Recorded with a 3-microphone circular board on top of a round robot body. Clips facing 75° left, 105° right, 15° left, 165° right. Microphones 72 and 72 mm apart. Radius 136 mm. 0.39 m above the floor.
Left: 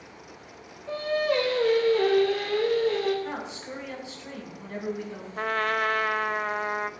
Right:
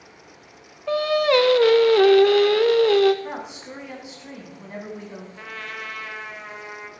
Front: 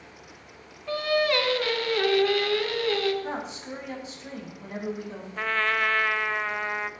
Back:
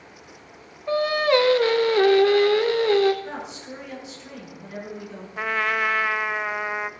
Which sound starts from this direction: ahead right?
A woman speaking, at 3.2 s.